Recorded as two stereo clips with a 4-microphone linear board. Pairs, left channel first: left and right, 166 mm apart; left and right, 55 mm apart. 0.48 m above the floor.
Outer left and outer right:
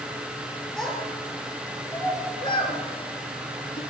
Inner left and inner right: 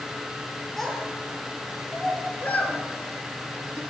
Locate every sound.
0.8 s a child speaking: 5° left (ahead or behind), 5 m; by 3.8 s 60° left (ahead or behind), 3 m